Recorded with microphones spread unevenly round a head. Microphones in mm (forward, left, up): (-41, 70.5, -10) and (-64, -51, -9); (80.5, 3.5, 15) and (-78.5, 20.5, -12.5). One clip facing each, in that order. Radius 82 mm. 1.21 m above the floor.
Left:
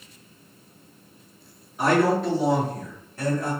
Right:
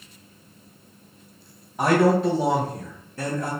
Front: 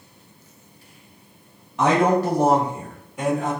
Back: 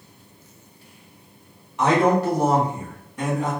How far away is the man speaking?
About 0.9 m.